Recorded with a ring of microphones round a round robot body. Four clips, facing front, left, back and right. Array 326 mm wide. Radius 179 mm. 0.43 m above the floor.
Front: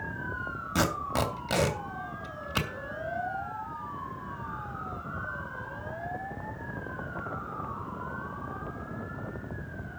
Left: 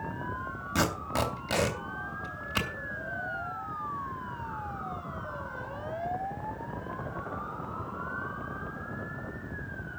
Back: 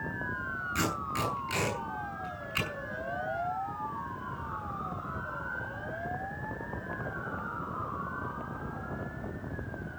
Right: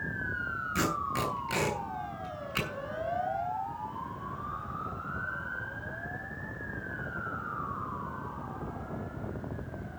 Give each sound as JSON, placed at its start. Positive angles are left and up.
{"t": 0.8, "sound": "tape being pulled", "azimuth_deg": 30, "distance_m": 3.0}